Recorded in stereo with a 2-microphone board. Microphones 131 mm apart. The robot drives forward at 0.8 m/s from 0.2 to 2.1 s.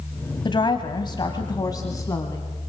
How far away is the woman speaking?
About 1.6 m.